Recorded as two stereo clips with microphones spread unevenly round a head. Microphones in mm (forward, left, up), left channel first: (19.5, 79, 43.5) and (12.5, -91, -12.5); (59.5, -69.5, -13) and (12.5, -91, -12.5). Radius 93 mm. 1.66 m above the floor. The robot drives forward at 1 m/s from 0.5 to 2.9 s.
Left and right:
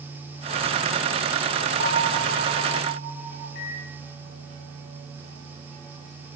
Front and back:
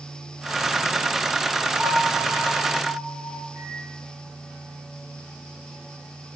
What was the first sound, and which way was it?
A bell, 75° right.